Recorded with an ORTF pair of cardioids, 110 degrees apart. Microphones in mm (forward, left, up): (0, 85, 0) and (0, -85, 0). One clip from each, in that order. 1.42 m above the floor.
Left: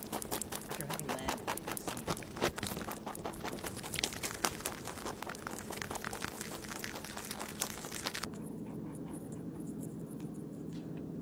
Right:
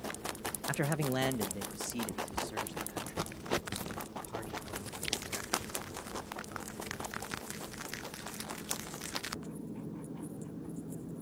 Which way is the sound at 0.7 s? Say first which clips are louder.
Right 7 dB; 70° right.